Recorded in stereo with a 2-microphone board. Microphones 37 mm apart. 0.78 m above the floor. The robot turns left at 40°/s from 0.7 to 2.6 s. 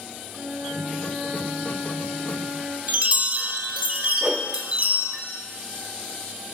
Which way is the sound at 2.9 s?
35° right (ahead or behind).